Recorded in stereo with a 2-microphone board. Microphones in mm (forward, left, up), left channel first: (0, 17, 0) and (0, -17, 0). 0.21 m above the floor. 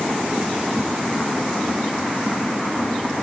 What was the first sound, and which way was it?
Only background noise.